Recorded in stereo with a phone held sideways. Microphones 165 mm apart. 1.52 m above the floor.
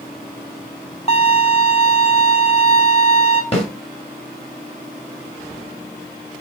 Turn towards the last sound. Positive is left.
turn(degrees=35)  # may be behind; listen again after turning